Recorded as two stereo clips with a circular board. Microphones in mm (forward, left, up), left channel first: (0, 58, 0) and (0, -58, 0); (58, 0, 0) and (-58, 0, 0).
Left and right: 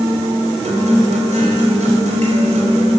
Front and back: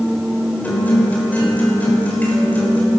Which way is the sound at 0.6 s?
75° right.